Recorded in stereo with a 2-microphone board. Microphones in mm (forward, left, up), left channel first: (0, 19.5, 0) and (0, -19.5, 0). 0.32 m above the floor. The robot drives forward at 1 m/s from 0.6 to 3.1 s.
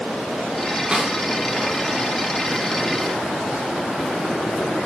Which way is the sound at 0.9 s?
20° right (ahead or behind).